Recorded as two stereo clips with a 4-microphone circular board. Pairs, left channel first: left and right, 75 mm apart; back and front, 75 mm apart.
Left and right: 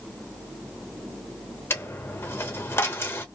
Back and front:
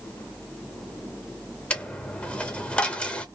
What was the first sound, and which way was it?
A dropped coin, 115° left.